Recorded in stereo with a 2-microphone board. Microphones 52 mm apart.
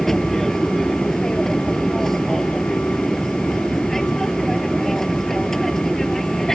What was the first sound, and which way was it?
An aircraft, 5° left (ahead or behind).